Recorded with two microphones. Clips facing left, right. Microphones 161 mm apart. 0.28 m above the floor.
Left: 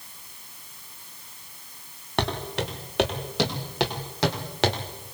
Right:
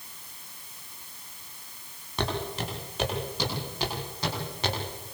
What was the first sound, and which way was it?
Footsteps, 75° left (ahead or behind).